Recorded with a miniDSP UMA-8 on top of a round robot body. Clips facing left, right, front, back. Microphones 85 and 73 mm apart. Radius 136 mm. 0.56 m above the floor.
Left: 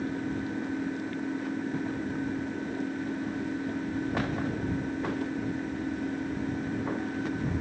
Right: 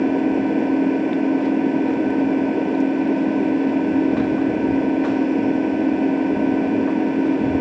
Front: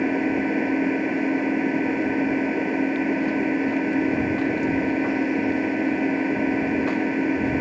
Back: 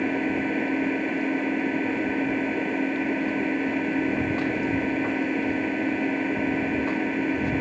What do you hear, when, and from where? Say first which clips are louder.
0.0 s an engine running: right 14 dB, front 3 dB; 80° right